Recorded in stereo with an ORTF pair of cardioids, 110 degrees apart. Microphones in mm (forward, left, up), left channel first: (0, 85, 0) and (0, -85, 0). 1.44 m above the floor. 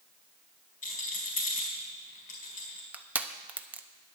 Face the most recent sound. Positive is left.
turn(degrees=-10)